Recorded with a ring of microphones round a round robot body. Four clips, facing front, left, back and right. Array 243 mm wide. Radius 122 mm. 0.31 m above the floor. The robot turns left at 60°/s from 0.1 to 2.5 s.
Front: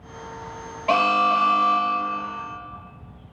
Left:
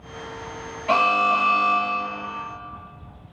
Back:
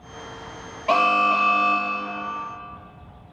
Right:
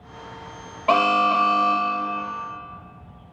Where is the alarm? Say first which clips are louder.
Right 1 dB, even; 75° right, 0.8 m; by 2.3 s 160° right, 0.8 m.